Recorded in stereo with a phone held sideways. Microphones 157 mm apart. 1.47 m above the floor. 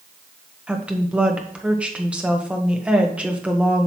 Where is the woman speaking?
5° right (ahead or behind), 1.3 m.